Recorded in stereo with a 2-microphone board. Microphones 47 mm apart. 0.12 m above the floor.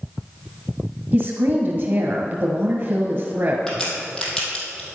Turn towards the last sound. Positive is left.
turn(degrees=10)  # may be behind; listen again after turning